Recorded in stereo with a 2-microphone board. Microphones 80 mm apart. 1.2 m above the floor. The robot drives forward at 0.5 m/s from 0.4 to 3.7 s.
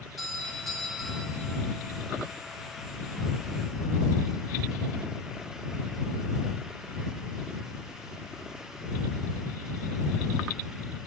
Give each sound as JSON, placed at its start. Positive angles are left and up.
{"t": 0.2, "sound": "a doorbell", "side_deg": 0, "distance_m": 9.0}